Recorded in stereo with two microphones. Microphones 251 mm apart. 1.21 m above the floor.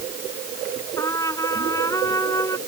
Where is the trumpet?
15° left (ahead or behind).